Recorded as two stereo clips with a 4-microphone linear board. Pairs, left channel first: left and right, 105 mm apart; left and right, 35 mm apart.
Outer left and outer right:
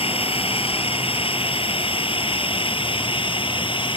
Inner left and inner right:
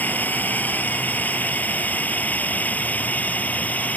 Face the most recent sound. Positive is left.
turn(degrees=55)  # may be behind; listen again after turning